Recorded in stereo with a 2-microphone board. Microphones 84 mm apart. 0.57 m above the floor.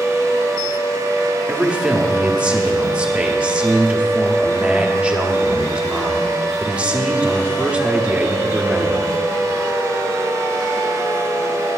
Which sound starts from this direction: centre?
A man speaking, at 1.5 s.